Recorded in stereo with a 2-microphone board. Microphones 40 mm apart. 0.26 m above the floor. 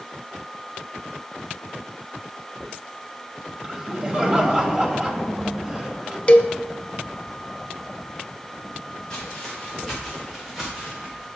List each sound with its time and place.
3.6 s laughter: 25° right (ahead or behind), 1.1 m
6.3 s a cowbell: 30° left (ahead or behind), 0.6 m
9.1 s footsteps: 15° left (ahead or behind), 4 m; by 11.3 s 20° right (ahead or behind), 3.5 m